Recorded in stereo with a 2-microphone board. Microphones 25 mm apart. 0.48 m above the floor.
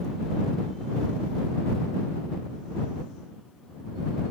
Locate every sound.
Only background noise.